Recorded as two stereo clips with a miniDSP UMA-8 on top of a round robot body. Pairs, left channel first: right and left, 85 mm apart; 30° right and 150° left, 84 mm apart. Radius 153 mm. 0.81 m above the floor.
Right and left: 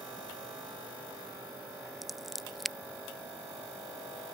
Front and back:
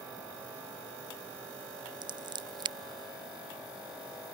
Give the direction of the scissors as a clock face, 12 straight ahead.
6 o'clock.